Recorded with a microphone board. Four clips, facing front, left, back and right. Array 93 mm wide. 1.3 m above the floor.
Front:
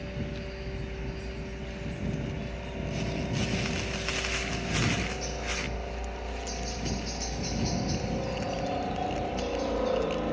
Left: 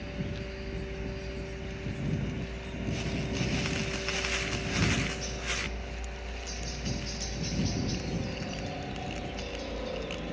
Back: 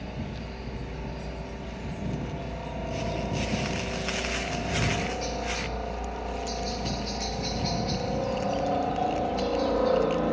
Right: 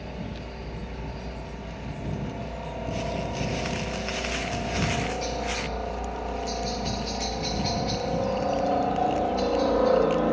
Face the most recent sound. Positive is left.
turn(degrees=-110)